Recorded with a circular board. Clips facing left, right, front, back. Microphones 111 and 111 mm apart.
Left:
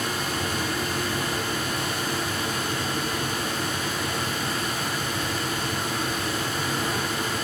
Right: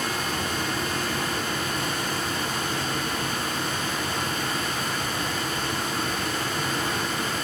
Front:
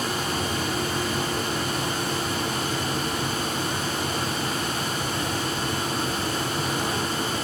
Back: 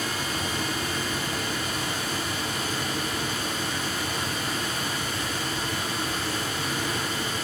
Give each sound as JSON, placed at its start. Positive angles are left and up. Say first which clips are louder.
{"t": 0.0, "sound": "running water", "louder": "even, front 3 dB", "azimuth_deg": -35, "distance_m": 5.5}